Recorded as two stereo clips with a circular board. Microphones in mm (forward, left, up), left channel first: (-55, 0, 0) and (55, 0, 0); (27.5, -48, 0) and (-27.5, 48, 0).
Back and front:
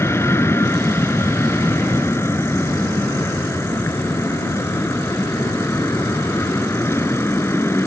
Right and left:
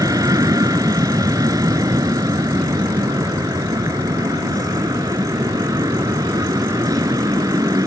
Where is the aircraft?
135° left.